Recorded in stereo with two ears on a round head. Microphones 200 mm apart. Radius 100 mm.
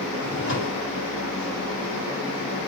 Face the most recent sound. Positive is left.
turn(degrees=65)  # may be behind; listen again after turning